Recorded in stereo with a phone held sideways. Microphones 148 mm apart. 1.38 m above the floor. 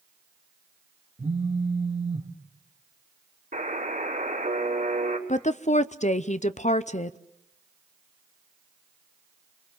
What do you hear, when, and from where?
1.2 s a phone buzzing: 50° right (ahead or behind), 1.8 m
3.5 s a buzzer: 65° right (ahead or behind), 4 m
5.3 s a woman speaking: 50° left (ahead or behind), 0.7 m